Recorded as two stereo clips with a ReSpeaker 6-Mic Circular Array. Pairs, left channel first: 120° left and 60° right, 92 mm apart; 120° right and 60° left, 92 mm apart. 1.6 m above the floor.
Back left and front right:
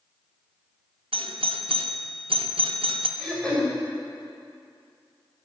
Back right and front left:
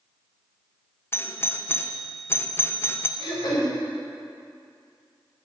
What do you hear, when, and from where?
1.1 s a doorbell: 55° right, 0.7 m
3.2 s throat clearing: 155° right, 3.5 m